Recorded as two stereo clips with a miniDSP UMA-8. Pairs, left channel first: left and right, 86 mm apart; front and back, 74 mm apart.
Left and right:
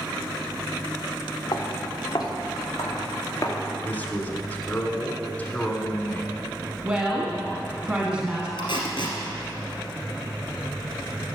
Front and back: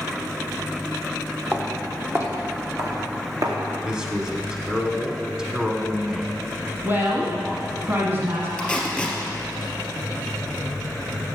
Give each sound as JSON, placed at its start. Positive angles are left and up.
{"t": 1.5, "sound": "footsteps", "azimuth_deg": 120, "distance_m": 1.9}
{"t": 3.8, "sound": "a man speaking", "azimuth_deg": 120, "distance_m": 1.1}
{"t": 6.8, "sound": "a woman speaking", "azimuth_deg": -155, "distance_m": 1.3}
{"t": 8.6, "sound": "tape being pulled", "azimuth_deg": 80, "distance_m": 2.0}